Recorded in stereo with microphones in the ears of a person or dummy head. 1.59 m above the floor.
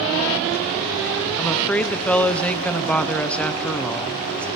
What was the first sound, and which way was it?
A woman speaking, 10° left (ahead or behind).